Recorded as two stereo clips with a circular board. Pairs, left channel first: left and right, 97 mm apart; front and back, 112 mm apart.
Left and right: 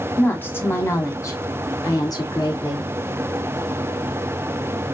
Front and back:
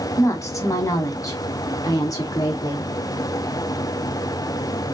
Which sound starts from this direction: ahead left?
A woman speaking, at 0.2 s.